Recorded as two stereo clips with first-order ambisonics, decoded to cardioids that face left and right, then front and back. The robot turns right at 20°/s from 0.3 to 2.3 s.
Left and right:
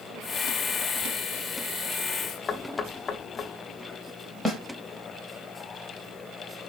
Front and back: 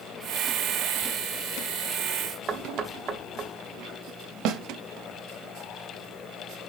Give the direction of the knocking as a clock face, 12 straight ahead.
7 o'clock.